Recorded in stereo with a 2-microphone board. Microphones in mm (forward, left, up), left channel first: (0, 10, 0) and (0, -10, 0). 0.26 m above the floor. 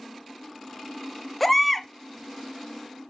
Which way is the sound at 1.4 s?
10° left (ahead or behind).